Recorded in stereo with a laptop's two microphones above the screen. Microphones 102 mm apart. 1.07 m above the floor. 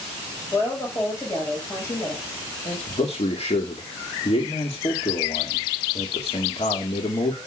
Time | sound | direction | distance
0.5 | a woman speaking | 25° left (ahead or behind) | 5 m
2.9 | a man speaking | 80° left | 2.5 m